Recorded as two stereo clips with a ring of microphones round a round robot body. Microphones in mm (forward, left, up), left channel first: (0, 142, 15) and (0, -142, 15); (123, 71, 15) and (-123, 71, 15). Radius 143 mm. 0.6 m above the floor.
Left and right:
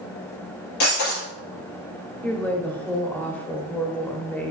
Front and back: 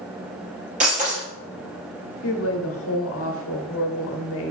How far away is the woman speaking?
About 1.4 m.